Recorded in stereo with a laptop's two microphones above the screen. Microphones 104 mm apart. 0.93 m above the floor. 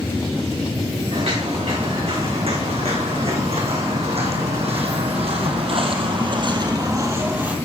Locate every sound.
1.1 s footsteps: 65° right (ahead or behind), 6 m; by 7.6 s 15° right (ahead or behind), 1.8 m